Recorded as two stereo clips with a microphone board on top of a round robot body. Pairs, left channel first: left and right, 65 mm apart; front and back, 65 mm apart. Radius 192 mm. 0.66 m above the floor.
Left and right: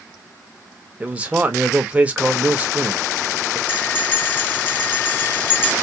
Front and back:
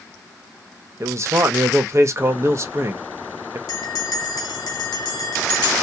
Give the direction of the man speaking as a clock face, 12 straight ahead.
5 o'clock.